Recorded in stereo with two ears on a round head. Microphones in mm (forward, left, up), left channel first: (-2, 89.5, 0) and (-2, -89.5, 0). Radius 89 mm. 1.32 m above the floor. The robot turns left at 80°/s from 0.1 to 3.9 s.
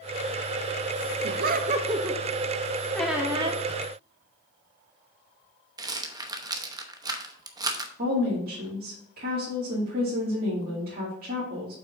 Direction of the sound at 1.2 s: 95° right.